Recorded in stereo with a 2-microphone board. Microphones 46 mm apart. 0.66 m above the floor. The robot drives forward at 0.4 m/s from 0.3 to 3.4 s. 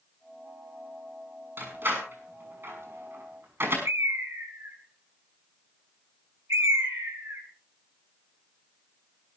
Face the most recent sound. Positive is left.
turn(degrees=-70)  # may be behind; listen again after turning